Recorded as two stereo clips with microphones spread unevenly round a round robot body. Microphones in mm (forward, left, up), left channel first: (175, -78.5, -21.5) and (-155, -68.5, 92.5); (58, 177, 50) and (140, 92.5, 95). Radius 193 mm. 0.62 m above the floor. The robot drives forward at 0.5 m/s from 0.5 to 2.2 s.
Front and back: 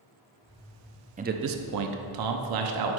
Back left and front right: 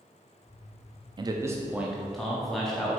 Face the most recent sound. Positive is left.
turn(degrees=-160)